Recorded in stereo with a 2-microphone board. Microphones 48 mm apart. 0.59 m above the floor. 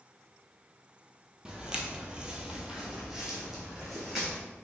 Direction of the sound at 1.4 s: 15° right (ahead or behind).